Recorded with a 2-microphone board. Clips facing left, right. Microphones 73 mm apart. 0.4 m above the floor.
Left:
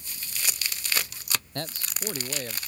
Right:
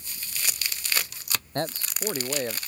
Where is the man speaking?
30° right (ahead or behind).